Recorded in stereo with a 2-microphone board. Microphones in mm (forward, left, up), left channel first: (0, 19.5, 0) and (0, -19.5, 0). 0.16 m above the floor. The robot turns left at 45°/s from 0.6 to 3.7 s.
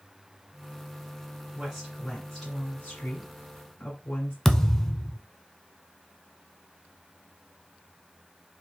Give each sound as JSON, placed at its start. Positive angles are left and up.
{"t": 1.6, "sound": "a woman speaking", "azimuth_deg": -160, "distance_m": 1.6}
{"t": 4.5, "sound": "a thud", "side_deg": 10, "distance_m": 0.5}